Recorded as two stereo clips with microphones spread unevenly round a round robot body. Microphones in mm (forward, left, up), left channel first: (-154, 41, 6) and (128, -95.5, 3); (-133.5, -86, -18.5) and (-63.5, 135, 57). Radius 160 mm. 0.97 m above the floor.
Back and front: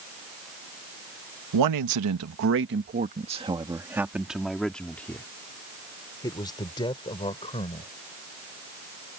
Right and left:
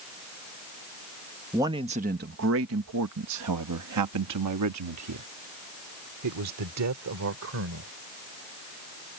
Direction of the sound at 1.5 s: 20° right.